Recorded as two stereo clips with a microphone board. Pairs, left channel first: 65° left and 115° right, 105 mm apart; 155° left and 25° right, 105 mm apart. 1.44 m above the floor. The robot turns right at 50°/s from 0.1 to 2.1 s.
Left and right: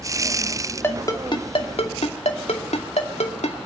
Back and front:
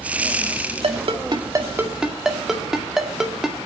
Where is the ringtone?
Straight ahead, 2 m; by 3.6 s 65° left, 2 m.